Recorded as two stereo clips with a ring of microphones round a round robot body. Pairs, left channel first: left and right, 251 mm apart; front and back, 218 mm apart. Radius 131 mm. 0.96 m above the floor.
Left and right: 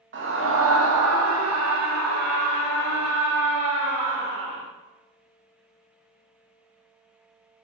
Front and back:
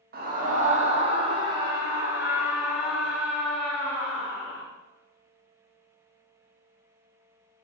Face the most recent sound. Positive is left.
turn(degrees=-80)